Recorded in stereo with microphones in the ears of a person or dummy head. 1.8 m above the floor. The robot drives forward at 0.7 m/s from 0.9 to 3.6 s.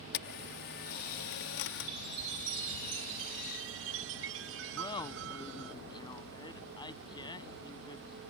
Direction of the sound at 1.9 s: 60° right (ahead or behind).